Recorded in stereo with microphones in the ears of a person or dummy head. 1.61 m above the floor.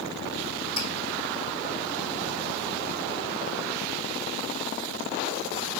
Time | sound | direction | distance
0.8 | dripping | 40° right (ahead or behind) | 1.1 m